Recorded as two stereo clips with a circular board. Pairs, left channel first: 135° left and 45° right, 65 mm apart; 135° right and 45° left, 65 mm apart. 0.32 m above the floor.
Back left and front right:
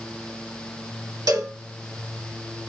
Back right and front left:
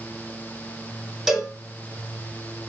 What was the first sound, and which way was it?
A cowbell, 40° right.